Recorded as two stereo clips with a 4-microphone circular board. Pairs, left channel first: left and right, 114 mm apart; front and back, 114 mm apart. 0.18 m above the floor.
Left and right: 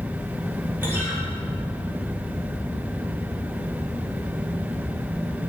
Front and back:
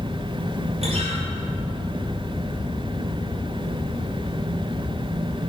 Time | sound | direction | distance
0.8 | a guitar | 160° right | 6 m